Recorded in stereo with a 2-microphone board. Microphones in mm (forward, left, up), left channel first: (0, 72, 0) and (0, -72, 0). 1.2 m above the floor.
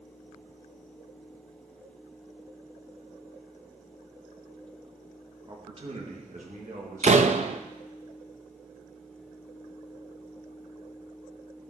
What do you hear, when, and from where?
5.5 s a man speaking: 30° right (ahead or behind), 1.7 m; by 7.6 s 80° right, 3.5 m
7.0 s a door slam: 50° right (ahead or behind), 0.6 m